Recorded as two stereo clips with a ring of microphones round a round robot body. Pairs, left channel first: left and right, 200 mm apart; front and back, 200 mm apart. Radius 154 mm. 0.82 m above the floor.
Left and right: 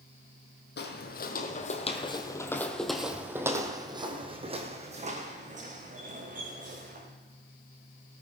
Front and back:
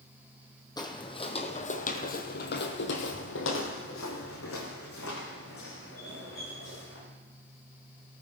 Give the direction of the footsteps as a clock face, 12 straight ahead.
10 o'clock.